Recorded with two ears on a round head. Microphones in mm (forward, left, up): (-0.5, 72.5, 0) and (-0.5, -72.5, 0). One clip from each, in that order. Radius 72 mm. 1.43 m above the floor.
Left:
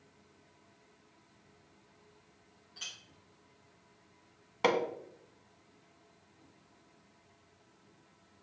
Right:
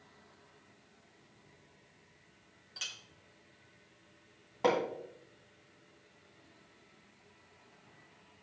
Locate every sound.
2.8 s a clink: 45° right (ahead or behind), 1.9 m
4.6 s hammering: 55° left (ahead or behind), 1.4 m